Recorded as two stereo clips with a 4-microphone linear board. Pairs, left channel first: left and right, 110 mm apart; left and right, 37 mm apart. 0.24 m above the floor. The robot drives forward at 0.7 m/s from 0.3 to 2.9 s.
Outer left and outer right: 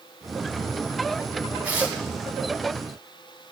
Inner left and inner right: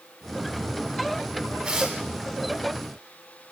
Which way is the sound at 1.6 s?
15° right (ahead or behind).